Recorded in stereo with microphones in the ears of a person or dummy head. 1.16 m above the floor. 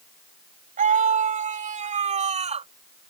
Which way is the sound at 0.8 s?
40° right (ahead or behind).